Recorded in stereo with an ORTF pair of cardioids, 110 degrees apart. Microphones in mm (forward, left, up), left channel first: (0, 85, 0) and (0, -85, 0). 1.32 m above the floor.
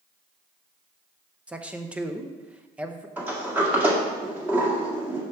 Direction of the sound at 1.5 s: 5° right.